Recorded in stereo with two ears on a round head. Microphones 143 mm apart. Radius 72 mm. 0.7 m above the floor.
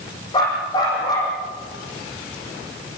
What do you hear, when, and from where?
0.3 s a dog barking: 25° left (ahead or behind), 8.5 m